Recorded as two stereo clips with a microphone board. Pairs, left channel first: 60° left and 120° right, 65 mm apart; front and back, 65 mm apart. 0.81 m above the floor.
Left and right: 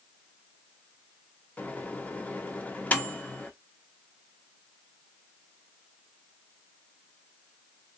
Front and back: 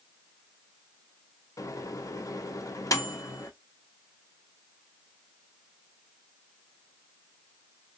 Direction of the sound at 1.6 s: Straight ahead.